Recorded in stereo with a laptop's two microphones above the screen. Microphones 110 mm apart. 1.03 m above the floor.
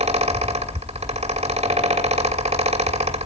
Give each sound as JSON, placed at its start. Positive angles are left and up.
{"t": 0.0, "sound": "a fan", "side_deg": -80, "distance_m": 1.6}